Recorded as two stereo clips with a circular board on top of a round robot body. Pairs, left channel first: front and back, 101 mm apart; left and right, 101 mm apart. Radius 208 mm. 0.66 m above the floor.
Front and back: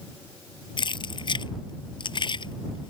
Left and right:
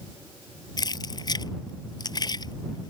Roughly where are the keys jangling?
Ahead left.